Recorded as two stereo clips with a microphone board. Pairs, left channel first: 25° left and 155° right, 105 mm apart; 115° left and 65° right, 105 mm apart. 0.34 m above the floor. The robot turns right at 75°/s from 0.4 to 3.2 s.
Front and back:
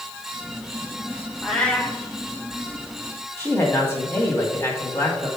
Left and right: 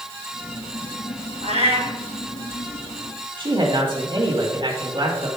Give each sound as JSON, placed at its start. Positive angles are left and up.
{"t": 1.4, "sound": "a cat meowing", "azimuth_deg": -75, "distance_m": 1.5}
{"t": 3.4, "sound": "a man speaking", "azimuth_deg": -40, "distance_m": 2.0}